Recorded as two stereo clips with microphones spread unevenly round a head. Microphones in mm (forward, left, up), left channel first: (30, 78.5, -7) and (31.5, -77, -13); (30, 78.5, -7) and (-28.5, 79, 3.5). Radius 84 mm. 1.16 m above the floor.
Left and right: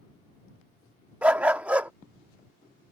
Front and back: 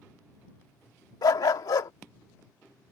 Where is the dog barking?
10° right.